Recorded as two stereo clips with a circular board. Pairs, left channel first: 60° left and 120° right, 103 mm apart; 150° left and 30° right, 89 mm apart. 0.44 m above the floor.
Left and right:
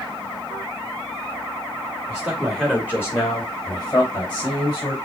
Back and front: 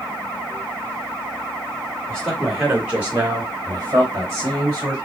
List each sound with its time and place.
2.1 s a man speaking: 155° right, 1.3 m; by 5.0 s 25° left, 3.5 m